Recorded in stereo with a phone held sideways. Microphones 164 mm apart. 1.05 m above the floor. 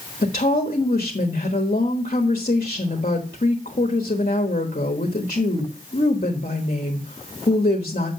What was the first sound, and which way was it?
A woman speaking, 55° left (ahead or behind).